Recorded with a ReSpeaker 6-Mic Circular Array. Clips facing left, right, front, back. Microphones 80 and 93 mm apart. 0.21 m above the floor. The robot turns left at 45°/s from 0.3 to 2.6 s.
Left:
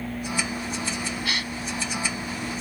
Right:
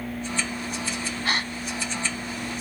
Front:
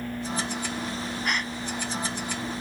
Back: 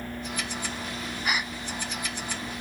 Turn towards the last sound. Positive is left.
turn(degrees=-160)